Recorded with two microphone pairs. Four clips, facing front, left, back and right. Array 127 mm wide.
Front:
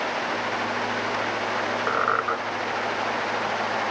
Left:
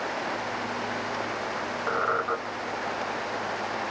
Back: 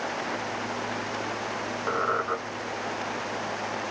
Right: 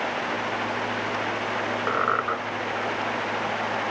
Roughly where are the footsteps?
I don't hear footsteps.